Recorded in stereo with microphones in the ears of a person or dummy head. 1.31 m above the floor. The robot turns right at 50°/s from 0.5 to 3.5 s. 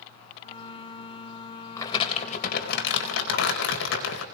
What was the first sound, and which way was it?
Crumpling, 25° left.